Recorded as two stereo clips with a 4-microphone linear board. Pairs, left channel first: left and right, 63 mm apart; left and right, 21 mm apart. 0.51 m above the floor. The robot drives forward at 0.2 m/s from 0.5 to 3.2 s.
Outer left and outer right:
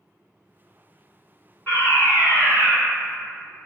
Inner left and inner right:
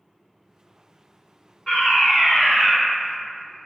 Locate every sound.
1.7 s a fire alarm: 25° left (ahead or behind), 1.8 m